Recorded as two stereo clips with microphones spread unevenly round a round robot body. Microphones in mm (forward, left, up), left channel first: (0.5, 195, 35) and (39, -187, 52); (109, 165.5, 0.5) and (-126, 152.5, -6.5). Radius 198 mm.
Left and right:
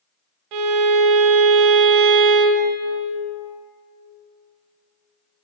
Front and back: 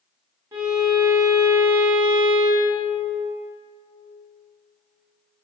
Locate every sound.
0.5 s a violin: 95° right, 1.1 m